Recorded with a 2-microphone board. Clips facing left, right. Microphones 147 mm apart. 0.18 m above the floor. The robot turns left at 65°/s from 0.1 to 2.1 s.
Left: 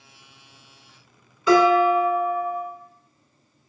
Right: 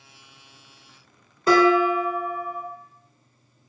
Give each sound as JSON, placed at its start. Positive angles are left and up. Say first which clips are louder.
{"t": 1.5, "sound": "dishes clattering", "louder": "left 1 dB", "azimuth_deg": -55, "distance_m": 1.2}